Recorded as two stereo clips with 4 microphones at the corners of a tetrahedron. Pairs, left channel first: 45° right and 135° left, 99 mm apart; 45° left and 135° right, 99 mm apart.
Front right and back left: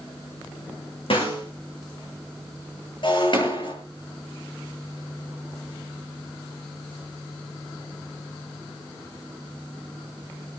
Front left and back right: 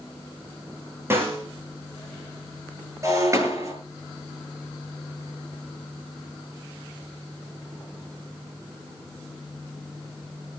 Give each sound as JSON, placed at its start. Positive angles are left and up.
{"t": 1.1, "sound": "a snare drum", "azimuth_deg": -70, "distance_m": 7.0}
{"t": 3.0, "sound": "breaking glass", "azimuth_deg": -75, "distance_m": 7.5}